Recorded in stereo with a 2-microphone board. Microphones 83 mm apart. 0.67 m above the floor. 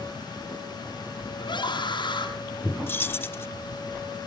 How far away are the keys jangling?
About 0.9 m.